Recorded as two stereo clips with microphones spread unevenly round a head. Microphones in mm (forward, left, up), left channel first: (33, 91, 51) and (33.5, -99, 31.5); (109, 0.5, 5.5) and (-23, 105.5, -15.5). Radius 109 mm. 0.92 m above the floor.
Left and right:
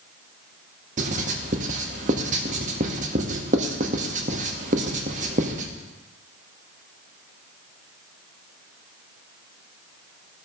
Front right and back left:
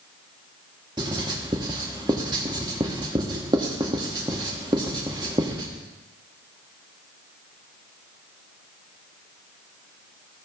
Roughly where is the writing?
Behind right.